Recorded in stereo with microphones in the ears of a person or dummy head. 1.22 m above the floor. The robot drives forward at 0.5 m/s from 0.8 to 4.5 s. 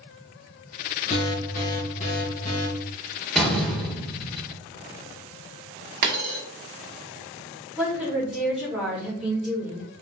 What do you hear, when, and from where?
1.1 s an alarm: 35° left (ahead or behind), 2 m; by 2.7 s 45° left (ahead or behind), 1.7 m
3.4 s a door slam: 5° right (ahead or behind), 1.4 m
6.0 s a dropped coin: 45° right (ahead or behind), 1.1 m
7.8 s a woman speaking: centre (ahead or behind), 2.5 m